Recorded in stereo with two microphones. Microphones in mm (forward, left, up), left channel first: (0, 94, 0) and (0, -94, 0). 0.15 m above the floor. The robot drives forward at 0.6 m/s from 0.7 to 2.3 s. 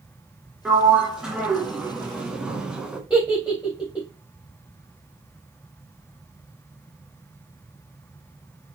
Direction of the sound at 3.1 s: 5° right (ahead or behind).